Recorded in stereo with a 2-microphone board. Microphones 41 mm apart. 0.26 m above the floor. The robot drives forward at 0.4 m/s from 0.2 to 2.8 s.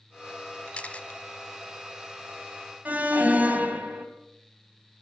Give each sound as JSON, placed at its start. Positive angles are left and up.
{"t": 0.7, "sound": "a camera shutter", "side_deg": 30, "distance_m": 0.7}
{"t": 2.9, "sound": "an alarm", "side_deg": -40, "distance_m": 2.5}